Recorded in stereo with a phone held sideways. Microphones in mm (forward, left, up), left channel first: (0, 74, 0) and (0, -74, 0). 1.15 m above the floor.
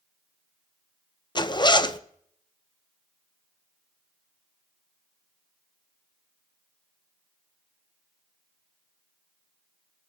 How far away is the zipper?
About 0.6 m.